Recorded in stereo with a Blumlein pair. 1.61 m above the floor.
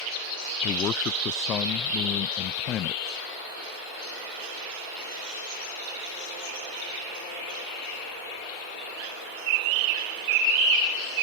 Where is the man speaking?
30° left.